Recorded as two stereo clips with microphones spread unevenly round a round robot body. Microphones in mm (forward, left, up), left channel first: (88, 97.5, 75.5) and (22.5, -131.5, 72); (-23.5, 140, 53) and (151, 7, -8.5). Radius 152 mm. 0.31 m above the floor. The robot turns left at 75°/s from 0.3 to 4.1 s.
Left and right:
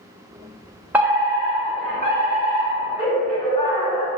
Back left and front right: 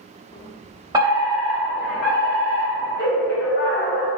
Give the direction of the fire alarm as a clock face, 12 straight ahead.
1 o'clock.